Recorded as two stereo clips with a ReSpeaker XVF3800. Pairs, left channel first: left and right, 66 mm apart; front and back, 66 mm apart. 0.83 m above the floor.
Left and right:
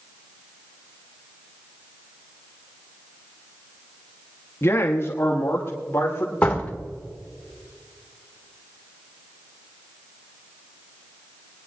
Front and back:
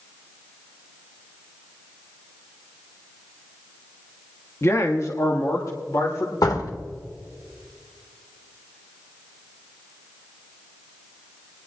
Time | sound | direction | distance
4.6 | a man speaking | 45° left | 1.1 m
6.4 | a door slam | 15° left | 2 m